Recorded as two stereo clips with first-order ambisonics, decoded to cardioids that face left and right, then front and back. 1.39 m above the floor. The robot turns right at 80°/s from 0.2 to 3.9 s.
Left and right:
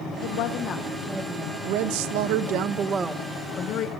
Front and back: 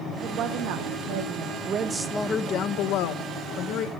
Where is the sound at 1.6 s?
130° right, 0.9 m; by 3.9 s 55° left, 0.9 m.